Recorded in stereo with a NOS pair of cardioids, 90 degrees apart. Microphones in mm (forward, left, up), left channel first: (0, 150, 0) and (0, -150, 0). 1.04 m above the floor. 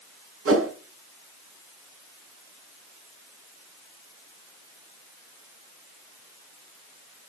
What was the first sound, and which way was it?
A whoosh, 50° right.